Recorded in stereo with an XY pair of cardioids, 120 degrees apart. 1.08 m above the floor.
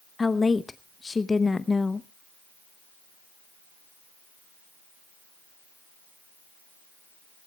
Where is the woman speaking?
20° left, 0.6 m.